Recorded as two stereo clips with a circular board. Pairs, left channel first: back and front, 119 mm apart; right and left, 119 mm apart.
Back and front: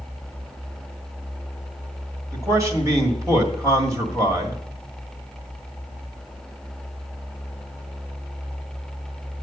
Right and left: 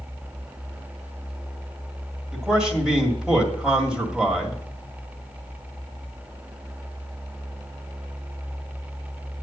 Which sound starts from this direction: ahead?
A man speaking, at 2.3 s.